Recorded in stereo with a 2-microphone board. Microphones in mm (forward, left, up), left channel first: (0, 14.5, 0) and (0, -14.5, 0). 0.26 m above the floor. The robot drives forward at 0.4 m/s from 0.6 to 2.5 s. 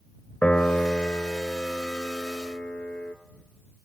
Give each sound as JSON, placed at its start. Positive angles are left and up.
{"t": 0.4, "sound": "a piano", "side_deg": 70, "distance_m": 2.0}